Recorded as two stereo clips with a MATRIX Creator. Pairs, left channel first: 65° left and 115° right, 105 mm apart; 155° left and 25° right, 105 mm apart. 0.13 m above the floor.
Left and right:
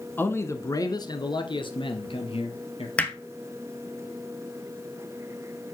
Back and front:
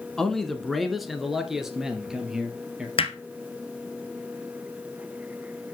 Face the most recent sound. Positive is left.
turn(degrees=145)